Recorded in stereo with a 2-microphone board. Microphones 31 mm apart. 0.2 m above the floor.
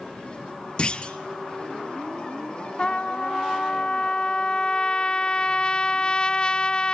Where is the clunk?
35° left (ahead or behind), 1.3 m.